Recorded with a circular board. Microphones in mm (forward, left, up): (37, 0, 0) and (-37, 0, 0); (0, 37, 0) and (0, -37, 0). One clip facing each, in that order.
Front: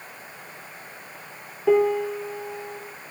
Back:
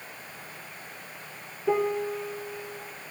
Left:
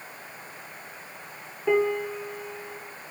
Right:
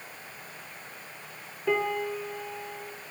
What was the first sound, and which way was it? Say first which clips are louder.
A piano: front 6 dB, left 4 dB; 15° left.